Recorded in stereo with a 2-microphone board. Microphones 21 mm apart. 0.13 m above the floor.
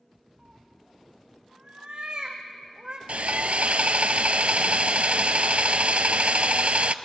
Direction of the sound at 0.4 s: 40° right (ahead or behind).